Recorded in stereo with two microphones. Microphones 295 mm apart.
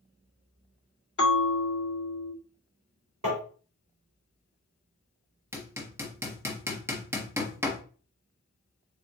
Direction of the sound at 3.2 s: 55° right (ahead or behind).